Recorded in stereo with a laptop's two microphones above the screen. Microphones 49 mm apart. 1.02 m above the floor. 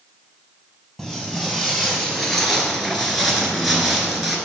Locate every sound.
1.0 s footsteps: 10° left (ahead or behind), 1.6 m; by 4.4 s centre (ahead or behind), 1.0 m